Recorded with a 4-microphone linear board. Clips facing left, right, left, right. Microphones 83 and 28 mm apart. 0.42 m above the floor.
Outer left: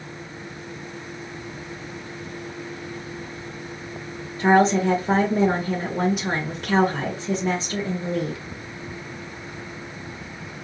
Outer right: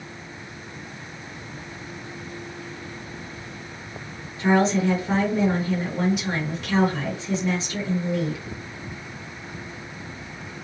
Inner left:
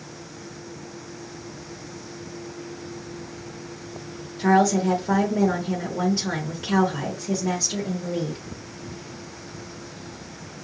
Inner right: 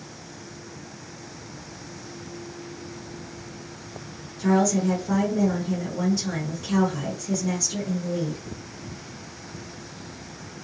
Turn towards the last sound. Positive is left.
turn(degrees=40)  # may be behind; listen again after turning